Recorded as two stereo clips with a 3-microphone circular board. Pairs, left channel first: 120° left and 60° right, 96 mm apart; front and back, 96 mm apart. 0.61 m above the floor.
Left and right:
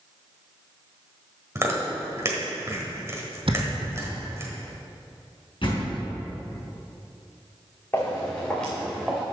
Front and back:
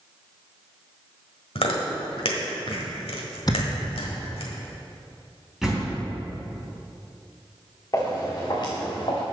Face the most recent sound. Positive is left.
turn(degrees=30)